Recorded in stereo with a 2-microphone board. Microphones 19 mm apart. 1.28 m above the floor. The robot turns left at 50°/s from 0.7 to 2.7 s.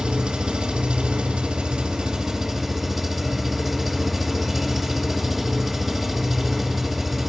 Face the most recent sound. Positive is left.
turn(degrees=-175)